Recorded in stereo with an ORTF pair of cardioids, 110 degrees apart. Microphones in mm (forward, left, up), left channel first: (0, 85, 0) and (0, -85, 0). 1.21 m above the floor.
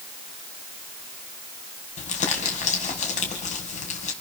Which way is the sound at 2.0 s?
50° left.